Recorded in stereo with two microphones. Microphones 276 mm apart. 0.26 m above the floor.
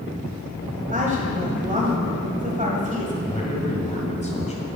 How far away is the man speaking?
About 1.8 m.